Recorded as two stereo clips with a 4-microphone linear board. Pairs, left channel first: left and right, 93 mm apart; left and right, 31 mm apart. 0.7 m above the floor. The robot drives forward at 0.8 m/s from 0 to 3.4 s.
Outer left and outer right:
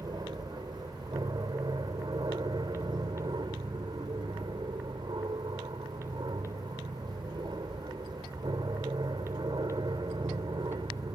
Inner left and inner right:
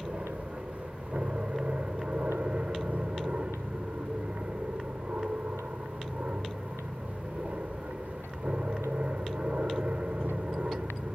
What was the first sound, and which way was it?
An aircraft, 50° right (ahead or behind).